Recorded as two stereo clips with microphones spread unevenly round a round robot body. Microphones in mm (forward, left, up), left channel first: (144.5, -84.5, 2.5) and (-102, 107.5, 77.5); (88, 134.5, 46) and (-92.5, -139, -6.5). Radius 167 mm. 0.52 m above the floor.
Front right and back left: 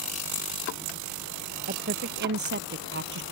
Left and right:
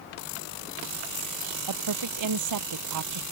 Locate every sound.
1.7 s a woman speaking: 155° right; by 3.2 s 160° right